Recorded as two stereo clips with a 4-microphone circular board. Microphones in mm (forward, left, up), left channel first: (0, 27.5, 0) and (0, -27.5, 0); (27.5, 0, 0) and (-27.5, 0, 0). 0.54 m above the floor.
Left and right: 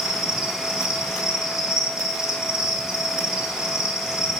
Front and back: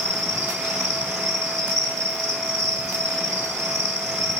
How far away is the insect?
About 1.3 m.